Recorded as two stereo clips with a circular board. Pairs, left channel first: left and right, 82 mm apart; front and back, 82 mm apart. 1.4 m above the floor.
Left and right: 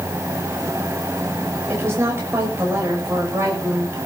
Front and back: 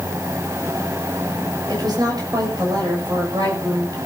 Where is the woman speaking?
150° right, 6.5 m.